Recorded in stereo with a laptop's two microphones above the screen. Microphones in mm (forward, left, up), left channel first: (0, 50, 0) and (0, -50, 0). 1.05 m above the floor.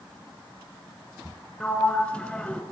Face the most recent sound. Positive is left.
turn(degrees=10)  # may be behind; listen again after turning